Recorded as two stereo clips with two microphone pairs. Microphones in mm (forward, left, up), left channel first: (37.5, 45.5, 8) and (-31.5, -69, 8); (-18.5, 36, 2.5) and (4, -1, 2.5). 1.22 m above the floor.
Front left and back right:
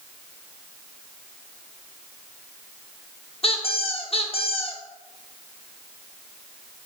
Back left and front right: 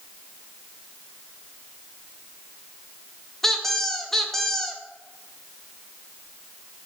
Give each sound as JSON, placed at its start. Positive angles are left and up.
{"t": 3.4, "sound": "a squeak", "azimuth_deg": 40, "distance_m": 0.7}